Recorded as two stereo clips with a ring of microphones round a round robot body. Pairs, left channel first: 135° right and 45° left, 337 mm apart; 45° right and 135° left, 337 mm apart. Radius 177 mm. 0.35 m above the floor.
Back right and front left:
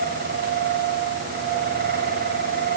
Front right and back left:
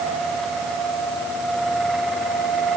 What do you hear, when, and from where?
Only background noise.